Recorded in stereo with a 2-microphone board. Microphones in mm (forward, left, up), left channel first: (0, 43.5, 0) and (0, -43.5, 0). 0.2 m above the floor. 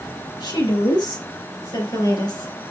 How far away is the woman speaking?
About 4.5 m.